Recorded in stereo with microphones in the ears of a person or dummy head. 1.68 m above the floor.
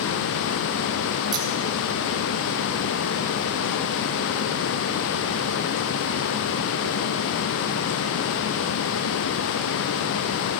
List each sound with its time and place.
1.3 s scissors: 25° right (ahead or behind), 1.4 m